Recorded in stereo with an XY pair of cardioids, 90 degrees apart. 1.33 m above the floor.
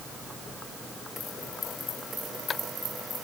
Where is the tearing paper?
No tearing paper in this recording.